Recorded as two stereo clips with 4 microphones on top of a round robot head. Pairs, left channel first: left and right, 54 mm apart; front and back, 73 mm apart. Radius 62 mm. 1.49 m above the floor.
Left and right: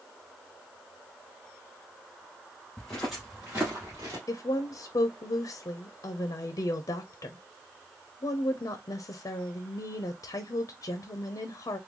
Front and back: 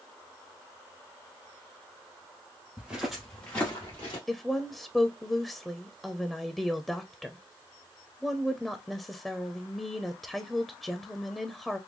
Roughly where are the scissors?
No scissors in this recording.